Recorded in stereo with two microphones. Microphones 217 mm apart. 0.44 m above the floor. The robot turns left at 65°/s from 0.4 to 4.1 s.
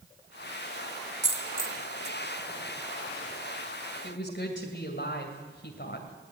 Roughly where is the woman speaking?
Left.